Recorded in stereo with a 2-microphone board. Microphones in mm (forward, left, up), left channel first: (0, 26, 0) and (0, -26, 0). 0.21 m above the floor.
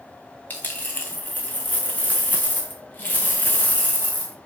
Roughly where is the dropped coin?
Left.